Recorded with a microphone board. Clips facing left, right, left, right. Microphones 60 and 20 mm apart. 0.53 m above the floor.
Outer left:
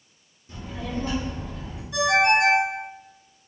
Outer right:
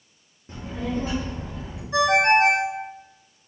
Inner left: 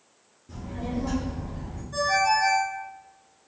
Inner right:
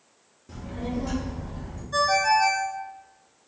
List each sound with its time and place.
0.5 s a child speaking: 40° right (ahead or behind), 0.5 m; by 1.8 s 20° right (ahead or behind), 1.4 m
1.9 s a ringtone: 35° right (ahead or behind), 0.7 m